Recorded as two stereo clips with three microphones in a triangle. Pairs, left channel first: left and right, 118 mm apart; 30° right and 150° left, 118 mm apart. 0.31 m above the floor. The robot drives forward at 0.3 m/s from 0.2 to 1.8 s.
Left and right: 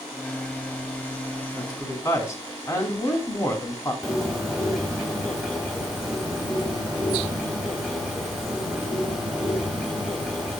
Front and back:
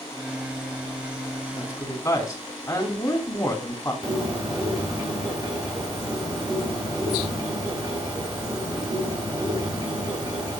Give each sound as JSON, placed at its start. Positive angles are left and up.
{"t": 1.5, "sound": "a woman speaking", "azimuth_deg": 30, "distance_m": 3.0}
{"t": 4.0, "sound": "a bird", "azimuth_deg": 180, "distance_m": 2.0}